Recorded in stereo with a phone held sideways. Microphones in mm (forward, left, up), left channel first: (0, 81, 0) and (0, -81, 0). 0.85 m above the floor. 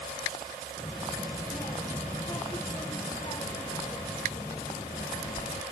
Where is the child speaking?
20° left (ahead or behind); by 5.6 s 25° left (ahead or behind).